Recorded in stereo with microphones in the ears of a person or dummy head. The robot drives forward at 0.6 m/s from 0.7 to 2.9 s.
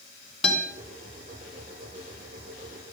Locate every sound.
0.4 s a guitar: centre (ahead or behind), 3 m